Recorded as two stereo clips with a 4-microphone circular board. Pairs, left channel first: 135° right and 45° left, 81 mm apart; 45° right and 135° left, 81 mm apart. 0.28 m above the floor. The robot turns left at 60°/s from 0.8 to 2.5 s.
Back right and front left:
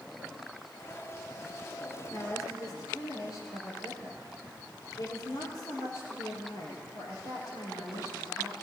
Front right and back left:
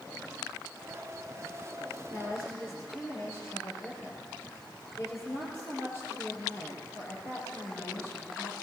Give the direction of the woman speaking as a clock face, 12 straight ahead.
2 o'clock.